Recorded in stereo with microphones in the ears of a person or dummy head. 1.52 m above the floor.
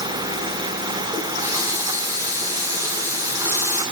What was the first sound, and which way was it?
A running tap, 25° right (ahead or behind).